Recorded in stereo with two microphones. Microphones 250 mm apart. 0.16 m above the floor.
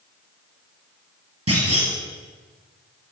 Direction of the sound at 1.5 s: 70° right (ahead or behind).